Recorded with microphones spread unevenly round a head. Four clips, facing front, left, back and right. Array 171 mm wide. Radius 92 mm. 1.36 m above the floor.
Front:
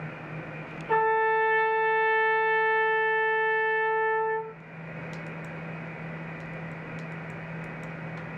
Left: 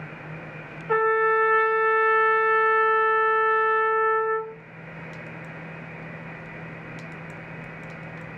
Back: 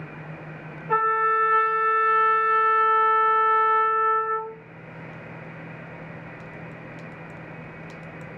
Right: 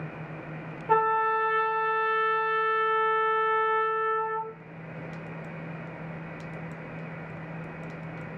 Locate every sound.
0.9 s a trumpet: 90° right, 0.7 m